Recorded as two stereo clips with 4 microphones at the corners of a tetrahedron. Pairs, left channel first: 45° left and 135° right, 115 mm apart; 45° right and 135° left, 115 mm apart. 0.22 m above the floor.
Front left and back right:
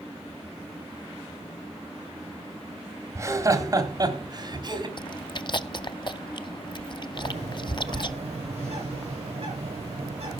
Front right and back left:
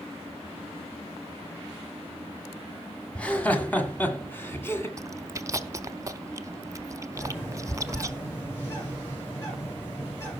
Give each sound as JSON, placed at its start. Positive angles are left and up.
{"t": 3.1, "sound": "laughter", "azimuth_deg": -110, "distance_m": 1.7}
{"t": 5.0, "sound": "chewing", "azimuth_deg": 85, "distance_m": 0.5}
{"t": 7.2, "sound": "a bird", "azimuth_deg": -110, "distance_m": 9.5}